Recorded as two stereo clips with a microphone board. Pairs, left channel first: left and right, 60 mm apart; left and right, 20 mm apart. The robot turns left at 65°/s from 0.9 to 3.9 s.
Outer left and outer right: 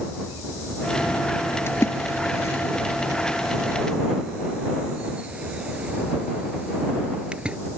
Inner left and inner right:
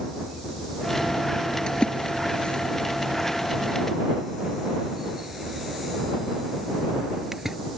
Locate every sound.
1.7 s a splash: 45° left (ahead or behind); by 7.6 s 20° right (ahead or behind)